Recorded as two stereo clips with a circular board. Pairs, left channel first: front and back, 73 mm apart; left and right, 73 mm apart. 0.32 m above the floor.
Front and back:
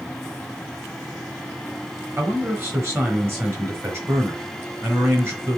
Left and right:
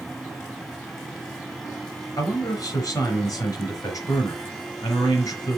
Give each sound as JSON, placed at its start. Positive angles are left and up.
{"t": 2.2, "sound": "a man speaking", "azimuth_deg": 125, "distance_m": 4.0}